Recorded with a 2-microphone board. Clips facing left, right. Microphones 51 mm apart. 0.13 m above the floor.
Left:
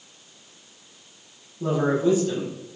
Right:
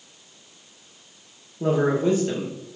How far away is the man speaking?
About 2.5 m.